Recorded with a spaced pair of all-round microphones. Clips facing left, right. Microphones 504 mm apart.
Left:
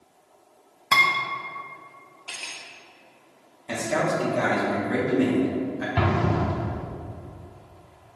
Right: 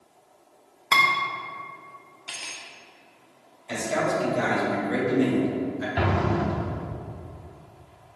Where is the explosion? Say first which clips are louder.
Left 1 dB; 25° left (ahead or behind), 0.7 m.